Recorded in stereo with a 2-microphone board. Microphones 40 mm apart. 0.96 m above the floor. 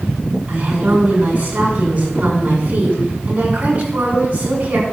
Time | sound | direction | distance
0.5 | a woman speaking | 35° right (ahead or behind) | 7 m